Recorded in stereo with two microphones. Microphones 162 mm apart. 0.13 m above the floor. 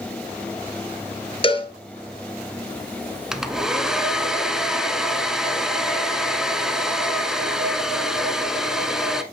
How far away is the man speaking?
I don't hear a man speaking.